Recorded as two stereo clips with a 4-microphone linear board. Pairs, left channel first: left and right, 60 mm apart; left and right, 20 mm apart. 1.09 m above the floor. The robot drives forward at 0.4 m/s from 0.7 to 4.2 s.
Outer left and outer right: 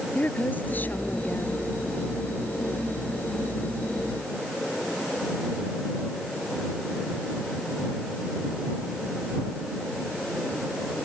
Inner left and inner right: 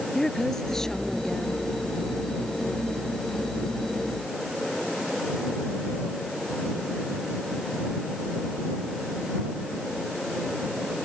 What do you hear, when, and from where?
0.1 s a woman speaking: 30° left (ahead or behind)